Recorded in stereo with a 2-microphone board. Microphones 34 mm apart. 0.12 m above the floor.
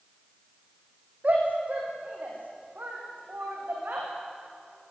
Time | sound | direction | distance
1.2 | a shout | 45° right (ahead or behind) | 6 m